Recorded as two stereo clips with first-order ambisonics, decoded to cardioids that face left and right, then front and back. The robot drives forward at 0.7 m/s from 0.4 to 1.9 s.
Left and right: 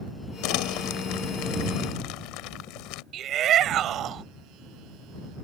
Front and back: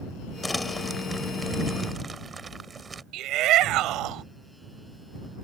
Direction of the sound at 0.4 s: 80° left.